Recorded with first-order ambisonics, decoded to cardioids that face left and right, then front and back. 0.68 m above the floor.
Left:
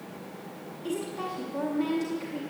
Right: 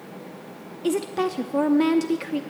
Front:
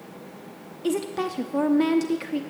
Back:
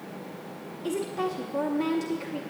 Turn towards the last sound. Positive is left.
turn(degrees=-60)